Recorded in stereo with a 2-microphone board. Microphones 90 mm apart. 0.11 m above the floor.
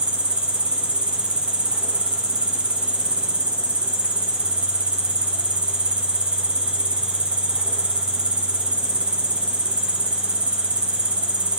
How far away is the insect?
About 0.7 m.